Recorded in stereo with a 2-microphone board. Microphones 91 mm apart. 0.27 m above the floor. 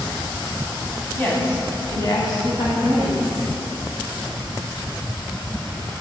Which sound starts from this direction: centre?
A woman speaking, at 1.1 s.